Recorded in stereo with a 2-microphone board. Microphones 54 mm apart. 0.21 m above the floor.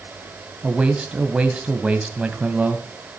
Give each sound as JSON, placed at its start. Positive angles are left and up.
{"t": 0.6, "sound": "a man speaking", "side_deg": -20, "distance_m": 1.6}